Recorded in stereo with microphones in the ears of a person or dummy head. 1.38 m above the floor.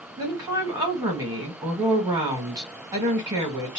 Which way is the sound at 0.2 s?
20° right (ahead or behind).